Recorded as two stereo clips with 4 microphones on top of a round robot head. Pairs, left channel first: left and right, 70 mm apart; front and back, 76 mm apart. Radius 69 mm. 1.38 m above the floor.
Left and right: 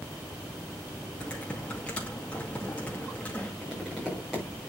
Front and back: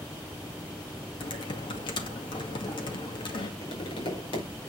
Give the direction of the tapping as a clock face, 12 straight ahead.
12 o'clock.